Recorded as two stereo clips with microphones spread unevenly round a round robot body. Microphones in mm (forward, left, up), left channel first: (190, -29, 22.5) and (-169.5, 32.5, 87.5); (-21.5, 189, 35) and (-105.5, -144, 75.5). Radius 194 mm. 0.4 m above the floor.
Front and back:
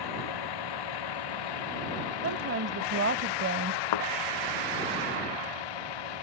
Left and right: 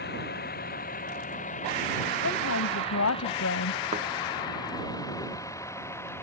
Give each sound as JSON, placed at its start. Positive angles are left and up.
{"t": 0.0, "sound": "a vehicle", "azimuth_deg": 10}
{"t": 2.2, "sound": "a woman speaking", "azimuth_deg": 115}
{"t": 3.9, "sound": "a thud", "azimuth_deg": -35}